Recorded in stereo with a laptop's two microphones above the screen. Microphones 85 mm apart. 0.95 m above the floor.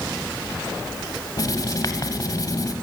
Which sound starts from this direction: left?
Writing, at 1.4 s.